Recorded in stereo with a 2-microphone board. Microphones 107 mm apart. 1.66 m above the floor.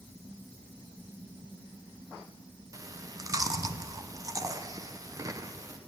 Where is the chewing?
30° right (ahead or behind), 0.7 m.